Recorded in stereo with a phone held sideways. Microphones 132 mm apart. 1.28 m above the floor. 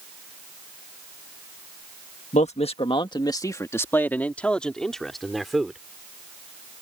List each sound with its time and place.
2.3 s a man speaking: 60° left (ahead or behind); by 5.8 s centre (ahead or behind)